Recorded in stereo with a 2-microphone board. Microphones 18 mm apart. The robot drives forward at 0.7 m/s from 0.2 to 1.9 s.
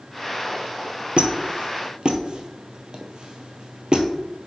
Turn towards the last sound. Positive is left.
turn(degrees=-55)  # may be behind; listen again after turning